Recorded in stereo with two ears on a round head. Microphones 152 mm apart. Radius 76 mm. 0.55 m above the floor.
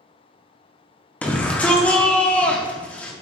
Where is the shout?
10° left (ahead or behind), 0.6 m.